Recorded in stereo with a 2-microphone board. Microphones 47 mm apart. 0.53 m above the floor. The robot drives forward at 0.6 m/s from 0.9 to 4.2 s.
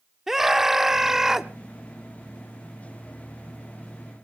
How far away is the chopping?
I don't hear chopping.